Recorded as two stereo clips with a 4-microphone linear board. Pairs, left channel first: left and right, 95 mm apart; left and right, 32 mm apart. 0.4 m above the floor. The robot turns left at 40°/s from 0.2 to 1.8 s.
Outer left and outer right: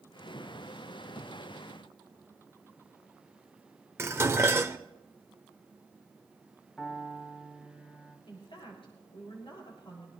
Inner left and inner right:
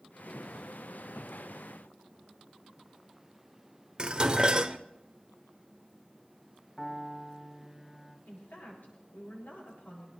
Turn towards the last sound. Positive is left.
turn(degrees=65)  # may be behind; listen again after turning